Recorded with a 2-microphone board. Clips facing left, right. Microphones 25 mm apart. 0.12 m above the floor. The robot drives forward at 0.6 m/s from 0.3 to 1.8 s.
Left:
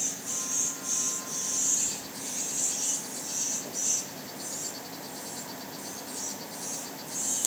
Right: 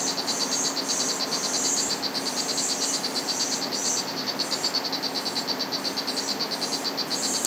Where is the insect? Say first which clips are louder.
Right 8 dB; 90° right; by 7.5 s 70° right (ahead or behind).